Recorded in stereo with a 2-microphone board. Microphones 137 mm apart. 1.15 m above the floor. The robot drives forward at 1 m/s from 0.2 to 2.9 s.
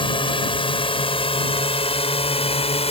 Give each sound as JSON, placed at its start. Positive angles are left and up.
{"t": 0.0, "sound": "a drone", "side_deg": 40}